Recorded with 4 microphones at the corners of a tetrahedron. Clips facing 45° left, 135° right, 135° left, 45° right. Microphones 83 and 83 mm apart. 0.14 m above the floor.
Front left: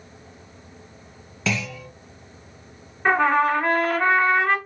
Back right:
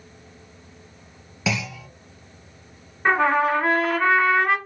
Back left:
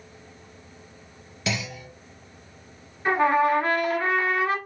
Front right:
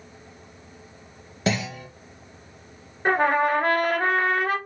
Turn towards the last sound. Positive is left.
turn(degrees=-50)